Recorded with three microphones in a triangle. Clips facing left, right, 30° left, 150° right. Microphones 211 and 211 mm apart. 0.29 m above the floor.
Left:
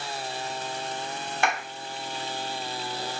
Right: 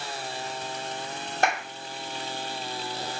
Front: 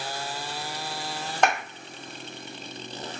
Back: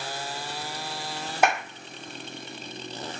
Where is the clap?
70° right, 1.5 m.